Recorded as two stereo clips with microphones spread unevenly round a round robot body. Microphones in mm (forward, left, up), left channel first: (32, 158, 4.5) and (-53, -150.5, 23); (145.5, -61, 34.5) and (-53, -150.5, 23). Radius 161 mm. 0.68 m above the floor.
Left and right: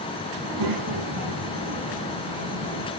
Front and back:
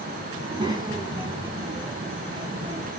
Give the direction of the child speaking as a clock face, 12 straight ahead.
3 o'clock.